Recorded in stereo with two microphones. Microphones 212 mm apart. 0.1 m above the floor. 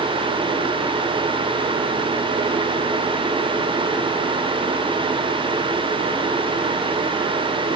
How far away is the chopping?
No chopping in this recording.